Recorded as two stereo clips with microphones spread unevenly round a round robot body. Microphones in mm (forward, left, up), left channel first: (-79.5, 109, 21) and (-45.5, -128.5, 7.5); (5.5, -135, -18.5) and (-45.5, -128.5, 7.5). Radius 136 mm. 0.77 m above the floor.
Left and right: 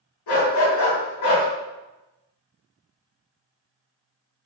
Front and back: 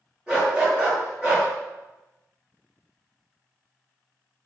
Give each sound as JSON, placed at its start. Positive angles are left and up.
{"t": 0.3, "sound": "a dog barking", "azimuth_deg": 85, "distance_m": 1.3}